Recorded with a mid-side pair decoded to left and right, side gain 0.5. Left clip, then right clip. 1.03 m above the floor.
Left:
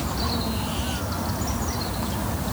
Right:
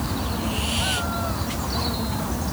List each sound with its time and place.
Only background noise.